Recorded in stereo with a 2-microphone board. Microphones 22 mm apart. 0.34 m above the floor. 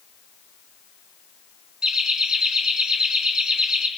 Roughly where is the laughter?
Right.